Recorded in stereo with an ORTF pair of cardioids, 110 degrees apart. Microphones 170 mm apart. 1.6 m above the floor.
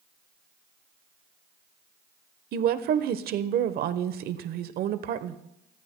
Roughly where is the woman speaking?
Ahead right.